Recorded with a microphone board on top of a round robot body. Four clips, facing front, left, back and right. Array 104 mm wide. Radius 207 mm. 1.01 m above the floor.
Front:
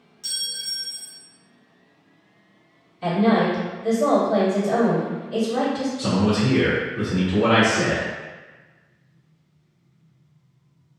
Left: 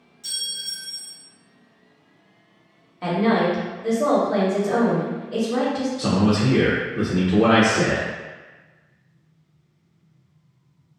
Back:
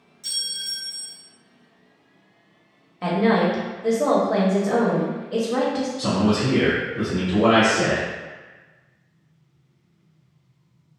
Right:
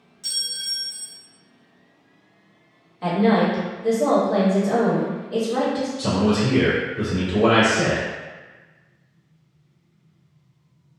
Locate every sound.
0.2 s a clink: 35° right, 0.6 m
3.0 s a woman speaking: 165° left, 1.3 m
6.0 s a man speaking: 95° left, 0.8 m